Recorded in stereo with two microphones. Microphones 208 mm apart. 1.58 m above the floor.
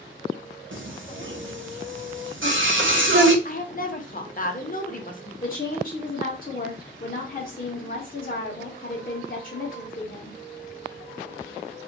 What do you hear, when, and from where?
0.7 s singing: 65° right (ahead or behind), 0.6 m
3.5 s a woman speaking: 40° left (ahead or behind), 0.5 m
5.4 s a woman speaking: 45° left (ahead or behind), 0.6 m